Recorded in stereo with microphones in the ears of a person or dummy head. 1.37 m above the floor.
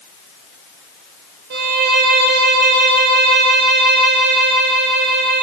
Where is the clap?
No clap in this recording.